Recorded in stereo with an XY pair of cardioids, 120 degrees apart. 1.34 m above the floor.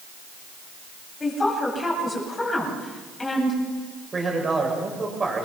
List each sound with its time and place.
1.2 s a woman speaking: 20° left, 8.5 m
4.1 s a man speaking: 25° right, 7.5 m